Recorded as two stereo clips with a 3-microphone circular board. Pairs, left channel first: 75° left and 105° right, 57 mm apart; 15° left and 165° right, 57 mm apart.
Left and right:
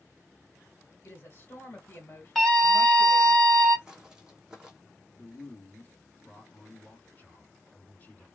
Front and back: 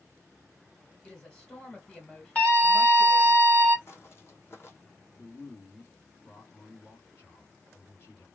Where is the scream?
5° right, 1.7 m.